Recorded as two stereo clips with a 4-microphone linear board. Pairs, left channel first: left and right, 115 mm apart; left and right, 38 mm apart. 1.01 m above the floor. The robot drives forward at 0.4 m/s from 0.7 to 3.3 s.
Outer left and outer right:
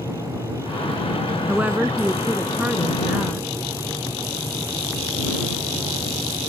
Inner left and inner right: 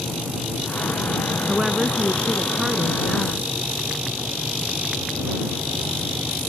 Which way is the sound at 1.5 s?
15° right (ahead or behind).